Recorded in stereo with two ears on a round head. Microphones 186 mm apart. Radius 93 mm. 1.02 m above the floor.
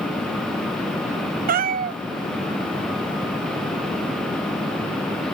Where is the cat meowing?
45° right (ahead or behind), 0.6 m.